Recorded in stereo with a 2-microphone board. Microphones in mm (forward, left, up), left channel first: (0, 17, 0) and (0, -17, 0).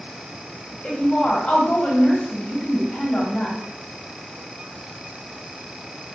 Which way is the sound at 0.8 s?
35° left (ahead or behind).